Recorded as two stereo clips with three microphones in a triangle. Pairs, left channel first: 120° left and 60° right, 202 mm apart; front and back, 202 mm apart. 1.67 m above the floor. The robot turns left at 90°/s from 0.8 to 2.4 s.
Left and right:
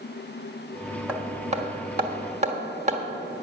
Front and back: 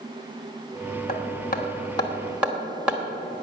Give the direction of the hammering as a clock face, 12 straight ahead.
11 o'clock.